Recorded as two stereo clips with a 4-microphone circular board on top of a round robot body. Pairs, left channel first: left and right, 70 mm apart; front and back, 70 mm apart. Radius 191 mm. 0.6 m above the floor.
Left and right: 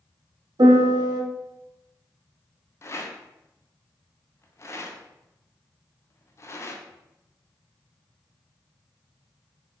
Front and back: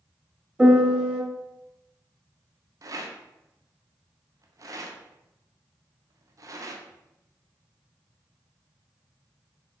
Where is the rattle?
140° left, 0.6 m.